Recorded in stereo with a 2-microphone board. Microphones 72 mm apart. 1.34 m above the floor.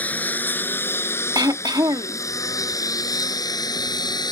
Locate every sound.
0.0 s a lawn mower: 20° left (ahead or behind); by 4.3 s 70° left (ahead or behind)
1.4 s throat clearing: 70° right (ahead or behind)